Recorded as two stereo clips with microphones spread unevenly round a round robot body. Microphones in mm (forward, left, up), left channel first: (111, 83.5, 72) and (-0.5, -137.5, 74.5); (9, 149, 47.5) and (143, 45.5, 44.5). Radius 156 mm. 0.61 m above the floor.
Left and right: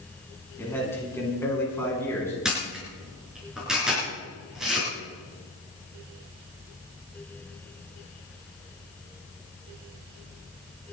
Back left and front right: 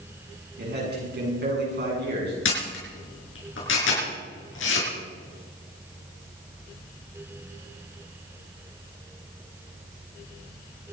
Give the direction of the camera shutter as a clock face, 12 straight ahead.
7 o'clock.